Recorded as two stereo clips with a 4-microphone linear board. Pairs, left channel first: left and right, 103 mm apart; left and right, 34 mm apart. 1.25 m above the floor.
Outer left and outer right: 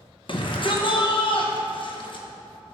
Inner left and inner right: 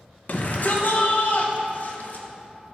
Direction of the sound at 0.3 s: 60° left (ahead or behind).